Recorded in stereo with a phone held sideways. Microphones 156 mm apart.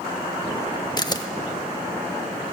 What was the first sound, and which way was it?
A camera shutter, 25° left (ahead or behind).